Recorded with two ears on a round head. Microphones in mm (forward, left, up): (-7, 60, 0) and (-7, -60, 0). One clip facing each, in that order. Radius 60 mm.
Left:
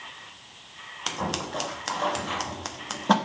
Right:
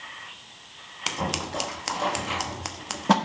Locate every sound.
1.1 s scissors: 5° right (ahead or behind), 0.8 m